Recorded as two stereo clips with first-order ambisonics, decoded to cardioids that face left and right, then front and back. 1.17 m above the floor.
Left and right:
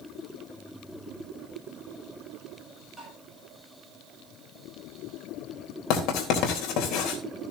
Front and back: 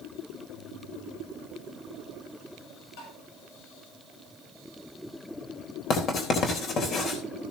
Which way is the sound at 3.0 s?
10° right.